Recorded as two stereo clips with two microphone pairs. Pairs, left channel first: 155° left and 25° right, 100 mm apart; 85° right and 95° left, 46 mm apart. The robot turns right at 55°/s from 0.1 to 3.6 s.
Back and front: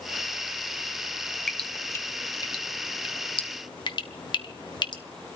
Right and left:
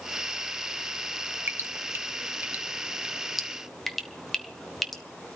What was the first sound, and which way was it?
Dripping, 70° left.